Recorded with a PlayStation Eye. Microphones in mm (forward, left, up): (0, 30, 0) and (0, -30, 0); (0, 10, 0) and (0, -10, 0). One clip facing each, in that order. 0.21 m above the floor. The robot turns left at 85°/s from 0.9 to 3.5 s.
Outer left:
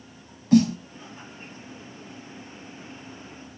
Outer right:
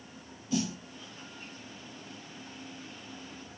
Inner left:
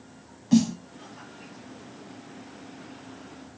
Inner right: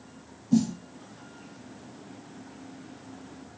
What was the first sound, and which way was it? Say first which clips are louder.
A snare drum: outer left 14 dB, inner left 3 dB; 55° left (ahead or behind).